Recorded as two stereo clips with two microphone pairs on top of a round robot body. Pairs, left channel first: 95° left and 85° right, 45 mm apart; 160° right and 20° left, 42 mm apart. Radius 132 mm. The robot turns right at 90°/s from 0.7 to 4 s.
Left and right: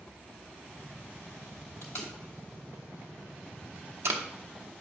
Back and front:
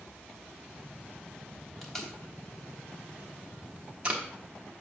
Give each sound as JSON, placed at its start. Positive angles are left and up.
{"t": 1.8, "sound": "tape being pulled", "azimuth_deg": 110, "distance_m": 0.9}